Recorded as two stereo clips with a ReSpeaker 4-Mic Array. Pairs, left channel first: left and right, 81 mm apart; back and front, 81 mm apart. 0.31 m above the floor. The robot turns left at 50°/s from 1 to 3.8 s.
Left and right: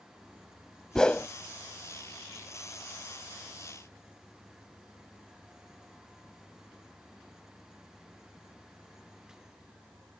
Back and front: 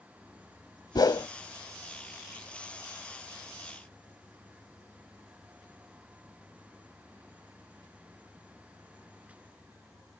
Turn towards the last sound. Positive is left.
turn(degrees=30)